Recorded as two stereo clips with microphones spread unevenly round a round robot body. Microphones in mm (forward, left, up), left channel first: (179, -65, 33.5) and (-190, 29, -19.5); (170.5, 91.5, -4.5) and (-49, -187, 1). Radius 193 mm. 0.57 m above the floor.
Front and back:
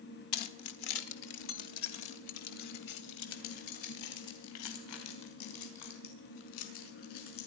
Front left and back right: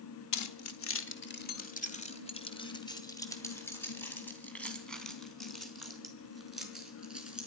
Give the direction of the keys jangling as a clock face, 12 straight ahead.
11 o'clock.